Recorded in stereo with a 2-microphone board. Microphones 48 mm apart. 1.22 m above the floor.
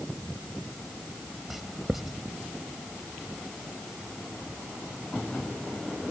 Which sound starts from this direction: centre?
Writing, at 1.5 s.